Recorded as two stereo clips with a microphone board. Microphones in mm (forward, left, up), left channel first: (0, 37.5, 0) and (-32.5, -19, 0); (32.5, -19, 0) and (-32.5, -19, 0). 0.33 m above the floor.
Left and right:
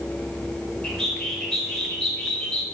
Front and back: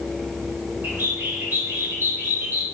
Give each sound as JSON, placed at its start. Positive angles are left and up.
{"t": 0.8, "sound": "a bird", "azimuth_deg": 135, "distance_m": 0.9}